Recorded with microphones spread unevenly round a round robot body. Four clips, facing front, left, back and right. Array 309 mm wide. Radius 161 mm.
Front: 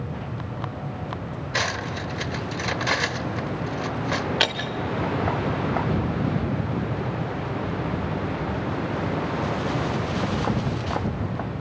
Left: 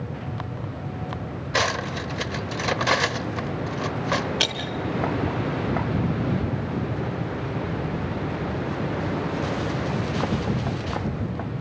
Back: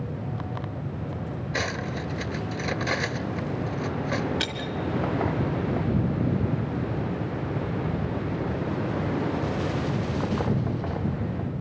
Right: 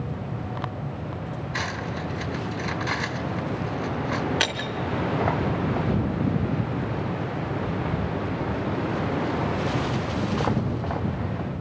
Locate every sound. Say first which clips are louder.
1.5 s cutlery clinking: left 7 dB, front 3 dB; 110° left, 1.2 m
4.4 s breaking glass: right 1 dB, front 5 dB; 5° right, 3 m